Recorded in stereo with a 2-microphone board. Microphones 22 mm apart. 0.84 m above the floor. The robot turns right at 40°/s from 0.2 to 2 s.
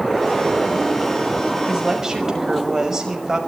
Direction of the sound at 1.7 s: 5° right (ahead or behind).